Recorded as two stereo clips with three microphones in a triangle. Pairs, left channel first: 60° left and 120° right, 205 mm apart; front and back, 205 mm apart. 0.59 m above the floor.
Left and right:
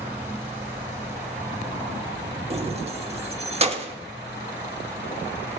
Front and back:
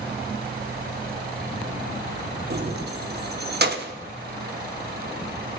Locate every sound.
2.5 s keys jangling: 170° right, 0.9 m